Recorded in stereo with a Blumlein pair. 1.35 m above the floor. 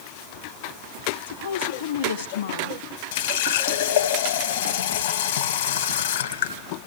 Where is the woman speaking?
65° left, 1.5 m.